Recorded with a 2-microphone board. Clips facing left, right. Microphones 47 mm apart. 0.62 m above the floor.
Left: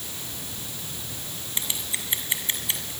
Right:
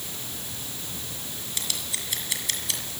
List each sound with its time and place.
1.6 s scissors: 25° left (ahead or behind), 7 m